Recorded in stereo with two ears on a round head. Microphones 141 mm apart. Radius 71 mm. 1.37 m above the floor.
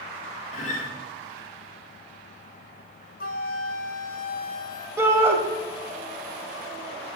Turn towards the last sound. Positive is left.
turn(degrees=-15)  # may be behind; listen again after turning